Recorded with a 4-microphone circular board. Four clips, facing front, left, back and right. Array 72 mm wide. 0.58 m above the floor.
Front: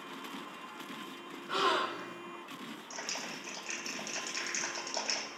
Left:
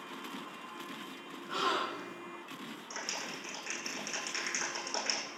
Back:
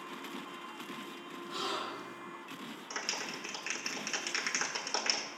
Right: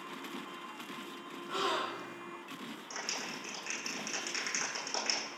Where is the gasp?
10° right, 2 m.